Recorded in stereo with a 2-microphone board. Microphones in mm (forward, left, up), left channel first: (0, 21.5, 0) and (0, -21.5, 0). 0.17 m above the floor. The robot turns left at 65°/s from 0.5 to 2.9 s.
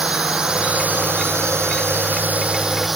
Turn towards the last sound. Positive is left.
turn(degrees=-175)